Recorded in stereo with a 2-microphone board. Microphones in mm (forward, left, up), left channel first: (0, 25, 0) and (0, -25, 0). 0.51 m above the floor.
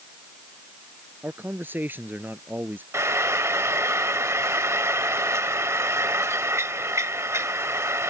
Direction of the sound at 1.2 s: 40° right (ahead or behind).